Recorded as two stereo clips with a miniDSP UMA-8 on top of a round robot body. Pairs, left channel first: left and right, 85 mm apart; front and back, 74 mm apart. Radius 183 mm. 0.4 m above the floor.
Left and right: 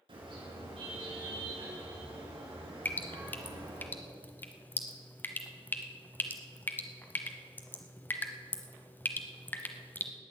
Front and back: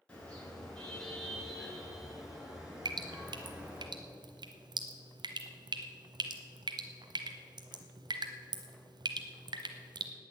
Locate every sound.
0.1 s a car horn: 75° right, 4.5 m; by 3.9 s 110° right, 5.5 m
2.9 s dripping: 160° left, 0.9 m